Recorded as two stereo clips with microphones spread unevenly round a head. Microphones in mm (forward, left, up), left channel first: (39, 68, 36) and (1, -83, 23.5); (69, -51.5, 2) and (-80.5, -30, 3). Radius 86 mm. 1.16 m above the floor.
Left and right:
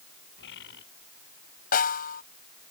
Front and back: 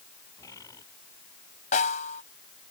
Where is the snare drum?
45° left.